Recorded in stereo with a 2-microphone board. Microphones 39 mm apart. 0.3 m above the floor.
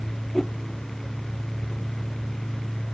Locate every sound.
0.3 s a whoosh: 5° left (ahead or behind)